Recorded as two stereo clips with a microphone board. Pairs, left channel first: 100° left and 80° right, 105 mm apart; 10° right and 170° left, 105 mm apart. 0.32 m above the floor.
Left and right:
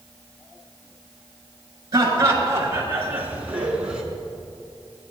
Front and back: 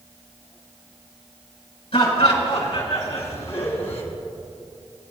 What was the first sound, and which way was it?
Laughter, 25° right.